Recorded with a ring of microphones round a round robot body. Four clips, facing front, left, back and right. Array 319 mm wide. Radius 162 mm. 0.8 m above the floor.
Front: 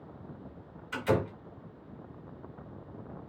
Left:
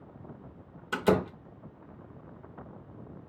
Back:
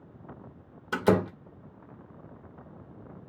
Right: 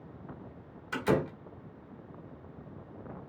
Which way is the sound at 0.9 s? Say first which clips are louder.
Left 3 dB, back 5 dB; 155° left.